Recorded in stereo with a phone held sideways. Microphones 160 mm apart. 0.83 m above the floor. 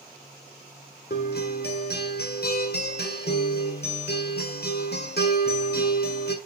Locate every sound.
1.1 s a guitar: 75° left (ahead or behind), 1.6 m